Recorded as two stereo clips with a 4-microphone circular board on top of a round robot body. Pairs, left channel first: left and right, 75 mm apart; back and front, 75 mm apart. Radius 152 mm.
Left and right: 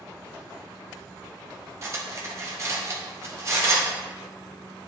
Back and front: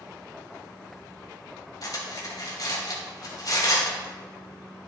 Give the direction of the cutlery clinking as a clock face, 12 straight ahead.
5 o'clock.